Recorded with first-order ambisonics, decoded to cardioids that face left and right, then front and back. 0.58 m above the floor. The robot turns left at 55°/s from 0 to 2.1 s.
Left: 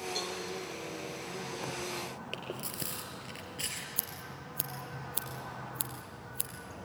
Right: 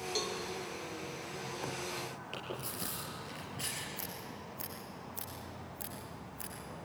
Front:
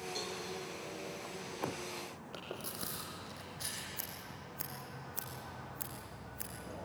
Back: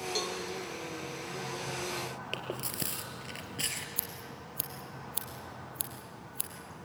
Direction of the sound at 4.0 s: 130° left.